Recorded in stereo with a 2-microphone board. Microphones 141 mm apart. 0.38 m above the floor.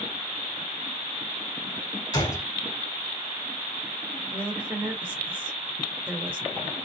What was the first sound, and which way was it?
A gunshot, 30° left (ahead or behind).